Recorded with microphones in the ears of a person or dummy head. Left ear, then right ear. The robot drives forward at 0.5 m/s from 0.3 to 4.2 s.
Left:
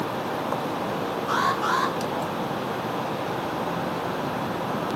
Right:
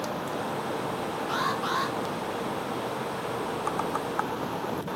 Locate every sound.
1.3 s an alarm: 55° left (ahead or behind), 9.5 m